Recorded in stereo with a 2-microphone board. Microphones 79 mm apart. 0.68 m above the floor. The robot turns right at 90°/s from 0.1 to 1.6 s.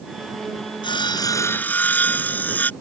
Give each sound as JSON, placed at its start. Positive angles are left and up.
{"t": 0.8, "sound": "sawing", "azimuth_deg": 90}